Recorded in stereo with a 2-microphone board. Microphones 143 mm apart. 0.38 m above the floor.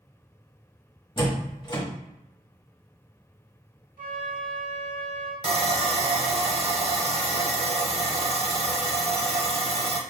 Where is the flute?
65° right (ahead or behind), 1.0 m.